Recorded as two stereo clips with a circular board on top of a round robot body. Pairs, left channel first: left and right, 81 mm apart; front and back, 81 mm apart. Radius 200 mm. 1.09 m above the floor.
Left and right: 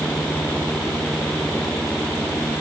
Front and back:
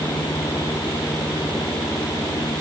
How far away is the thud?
I don't hear a thud.